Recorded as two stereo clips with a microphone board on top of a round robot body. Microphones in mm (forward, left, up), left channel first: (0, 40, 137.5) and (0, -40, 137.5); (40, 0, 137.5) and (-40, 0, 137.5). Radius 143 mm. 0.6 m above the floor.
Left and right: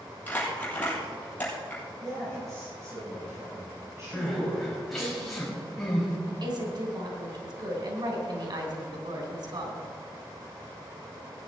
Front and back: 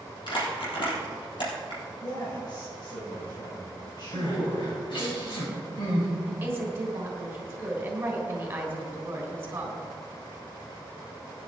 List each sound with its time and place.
0.3 s crumpling: 20° left, 4 m
2.0 s a man speaking: 35° right, 4 m
4.1 s crying: 5° left, 4.5 m
6.3 s a woman speaking: 115° right, 3 m